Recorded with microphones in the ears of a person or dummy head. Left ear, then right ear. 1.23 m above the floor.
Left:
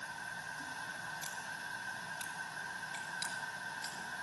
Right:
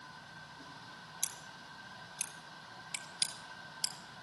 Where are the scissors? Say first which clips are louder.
Left 2 dB; 25° right (ahead or behind), 1.4 m.